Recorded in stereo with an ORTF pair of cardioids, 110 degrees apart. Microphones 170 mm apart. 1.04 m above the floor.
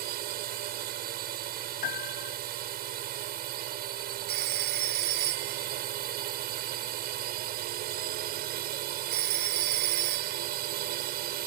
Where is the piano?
65° left.